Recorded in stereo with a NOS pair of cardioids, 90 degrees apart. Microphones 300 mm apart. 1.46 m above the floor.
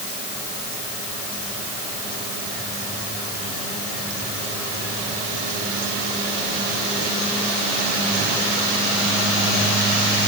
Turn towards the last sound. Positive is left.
No sound to turn to.